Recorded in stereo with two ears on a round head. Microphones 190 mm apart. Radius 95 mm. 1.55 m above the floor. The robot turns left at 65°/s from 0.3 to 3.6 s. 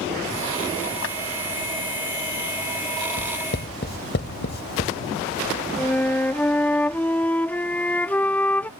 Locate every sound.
1.0 s a clap: 65° left (ahead or behind); by 1.2 s 55° left (ahead or behind)
3.2 s writing: 80° left; by 4.9 s 50° left (ahead or behind)
5.8 s a flute: 10° left (ahead or behind)